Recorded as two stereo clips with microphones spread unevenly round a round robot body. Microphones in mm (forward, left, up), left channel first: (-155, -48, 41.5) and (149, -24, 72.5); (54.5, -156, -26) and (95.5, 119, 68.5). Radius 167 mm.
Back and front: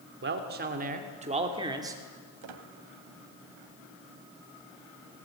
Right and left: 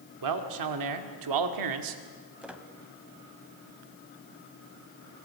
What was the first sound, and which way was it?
A man speaking, 60° left.